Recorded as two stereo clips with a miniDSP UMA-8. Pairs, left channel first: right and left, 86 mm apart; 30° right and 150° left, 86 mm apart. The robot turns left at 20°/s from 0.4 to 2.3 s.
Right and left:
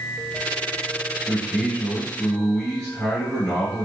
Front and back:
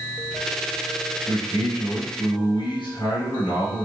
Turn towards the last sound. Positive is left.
turn(degrees=-15)